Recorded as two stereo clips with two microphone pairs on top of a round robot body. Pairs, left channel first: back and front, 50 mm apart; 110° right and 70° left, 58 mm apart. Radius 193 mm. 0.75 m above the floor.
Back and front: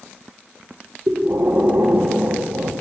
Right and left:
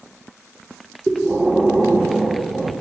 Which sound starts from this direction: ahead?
Breathing, at 1.1 s.